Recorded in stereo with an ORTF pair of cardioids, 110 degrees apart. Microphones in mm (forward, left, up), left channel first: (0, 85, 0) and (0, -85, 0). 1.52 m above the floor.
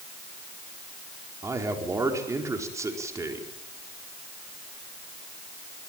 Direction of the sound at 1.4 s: 20° right.